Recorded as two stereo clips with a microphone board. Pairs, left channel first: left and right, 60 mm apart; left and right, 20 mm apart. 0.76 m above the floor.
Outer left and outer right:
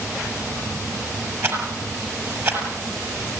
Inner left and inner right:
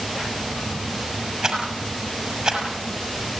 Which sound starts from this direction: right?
A rattle, at 1.4 s.